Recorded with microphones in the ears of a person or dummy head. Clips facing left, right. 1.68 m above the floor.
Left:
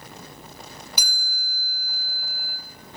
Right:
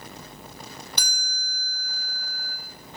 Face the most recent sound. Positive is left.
turn(degrees=10)  # may be behind; listen again after turning